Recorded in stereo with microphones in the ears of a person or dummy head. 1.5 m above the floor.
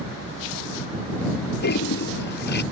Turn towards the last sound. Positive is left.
turn(degrees=50)  # may be behind; listen again after turning